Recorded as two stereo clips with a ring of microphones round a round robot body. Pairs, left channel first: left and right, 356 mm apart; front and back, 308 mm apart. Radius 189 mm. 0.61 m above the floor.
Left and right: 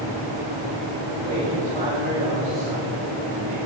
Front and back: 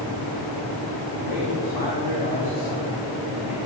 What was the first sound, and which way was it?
A man speaking, 20° right.